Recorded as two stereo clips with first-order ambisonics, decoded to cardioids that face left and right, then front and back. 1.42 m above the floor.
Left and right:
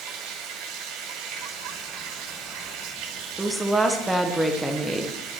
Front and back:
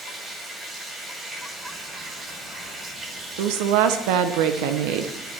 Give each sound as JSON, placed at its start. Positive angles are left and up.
{"t": 0.0, "sound": "running water", "azimuth_deg": -110, "distance_m": 2.5}
{"t": 3.4, "sound": "a woman speaking", "azimuth_deg": -175, "distance_m": 0.8}